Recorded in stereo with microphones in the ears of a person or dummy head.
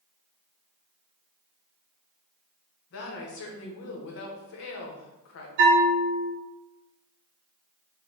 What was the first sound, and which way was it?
A woman speaking, 65° left (ahead or behind).